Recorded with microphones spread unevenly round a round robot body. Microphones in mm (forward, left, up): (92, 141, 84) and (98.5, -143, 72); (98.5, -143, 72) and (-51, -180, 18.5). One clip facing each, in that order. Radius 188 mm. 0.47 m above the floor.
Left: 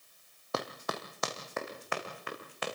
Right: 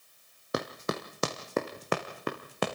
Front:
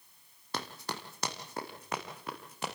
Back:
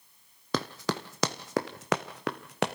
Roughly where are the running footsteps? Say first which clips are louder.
Right 5 dB, back 9 dB; behind.